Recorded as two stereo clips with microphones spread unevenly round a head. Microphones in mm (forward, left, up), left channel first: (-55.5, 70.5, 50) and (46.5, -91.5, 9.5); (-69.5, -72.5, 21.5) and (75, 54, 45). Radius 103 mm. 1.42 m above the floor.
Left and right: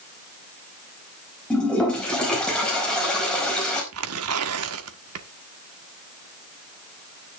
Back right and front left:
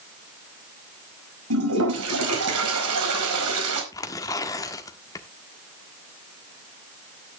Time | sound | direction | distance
1.5 | a toilet flushing | 40° left | 4.5 m
3.9 | tearing paper | 65° right | 1.4 m